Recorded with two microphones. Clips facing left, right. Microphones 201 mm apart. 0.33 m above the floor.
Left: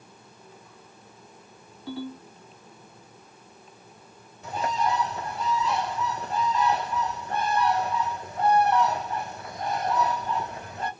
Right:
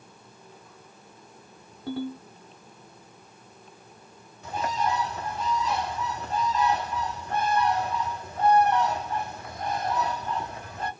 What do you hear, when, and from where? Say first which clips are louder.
1.9 s a ringtone: right 3 dB; 70° right (ahead or behind), 1.1 m
4.4 s a bird: left 1 dB; 35° left (ahead or behind), 1.8 m